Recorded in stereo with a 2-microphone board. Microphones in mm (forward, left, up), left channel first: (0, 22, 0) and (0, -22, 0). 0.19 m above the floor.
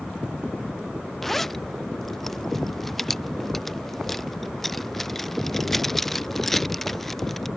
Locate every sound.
1.2 s a zipper: 5° left (ahead or behind)